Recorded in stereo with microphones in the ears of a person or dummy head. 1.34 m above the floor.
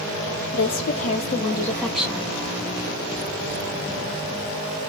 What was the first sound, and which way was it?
A woman speaking, 45° left (ahead or behind).